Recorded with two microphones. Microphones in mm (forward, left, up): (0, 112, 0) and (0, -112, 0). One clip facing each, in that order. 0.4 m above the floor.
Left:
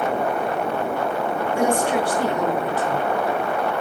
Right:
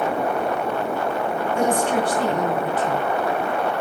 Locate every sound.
1.5 s a woman speaking: 10° left (ahead or behind), 5.5 m